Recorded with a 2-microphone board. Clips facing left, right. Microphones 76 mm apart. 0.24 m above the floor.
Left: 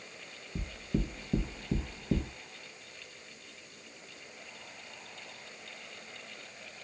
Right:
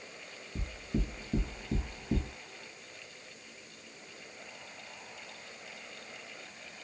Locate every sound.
0.6 s knocking: 20° left (ahead or behind), 0.6 m